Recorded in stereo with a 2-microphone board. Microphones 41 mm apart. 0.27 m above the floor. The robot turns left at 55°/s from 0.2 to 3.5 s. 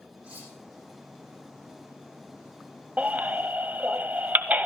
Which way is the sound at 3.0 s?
35° right (ahead or behind).